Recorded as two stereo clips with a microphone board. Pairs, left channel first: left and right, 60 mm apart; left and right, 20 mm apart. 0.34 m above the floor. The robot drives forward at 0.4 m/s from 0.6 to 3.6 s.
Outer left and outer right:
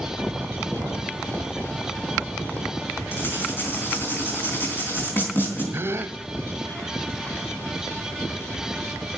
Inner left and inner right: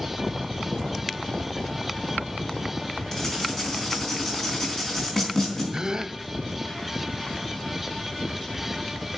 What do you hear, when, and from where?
3.1 s writing: 35° left (ahead or behind), 4 m
5.7 s a gasp: 40° right (ahead or behind), 0.6 m